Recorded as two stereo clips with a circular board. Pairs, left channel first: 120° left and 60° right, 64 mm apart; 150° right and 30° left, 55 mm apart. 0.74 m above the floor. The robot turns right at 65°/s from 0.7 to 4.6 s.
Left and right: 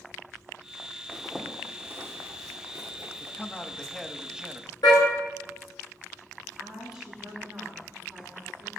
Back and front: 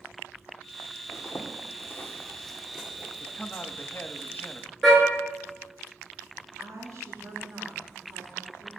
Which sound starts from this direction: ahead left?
A woman speaking, at 6.6 s.